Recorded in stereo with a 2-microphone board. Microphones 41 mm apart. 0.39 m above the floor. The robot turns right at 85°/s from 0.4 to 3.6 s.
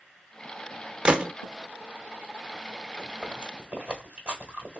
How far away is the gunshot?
About 0.5 m.